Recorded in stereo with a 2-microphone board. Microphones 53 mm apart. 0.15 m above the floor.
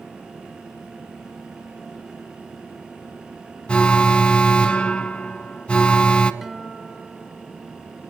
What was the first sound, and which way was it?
An alarm, 20° left (ahead or behind).